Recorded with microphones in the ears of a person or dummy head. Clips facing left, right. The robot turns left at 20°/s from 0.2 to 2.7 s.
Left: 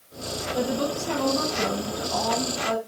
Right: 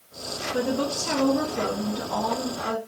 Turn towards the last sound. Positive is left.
turn(degrees=-120)